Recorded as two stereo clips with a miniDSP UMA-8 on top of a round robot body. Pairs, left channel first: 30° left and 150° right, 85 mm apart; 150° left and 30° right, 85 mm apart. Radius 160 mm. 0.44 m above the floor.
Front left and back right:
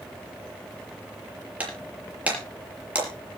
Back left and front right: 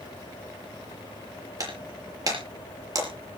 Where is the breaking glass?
75° right, 5 m.